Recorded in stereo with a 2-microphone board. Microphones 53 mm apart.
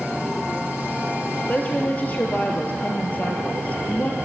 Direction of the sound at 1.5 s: 35° left (ahead or behind).